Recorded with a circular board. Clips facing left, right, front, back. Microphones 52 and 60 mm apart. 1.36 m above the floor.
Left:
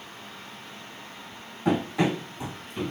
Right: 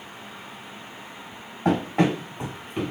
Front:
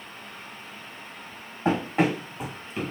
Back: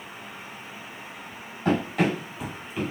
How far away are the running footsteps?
About 3.5 m.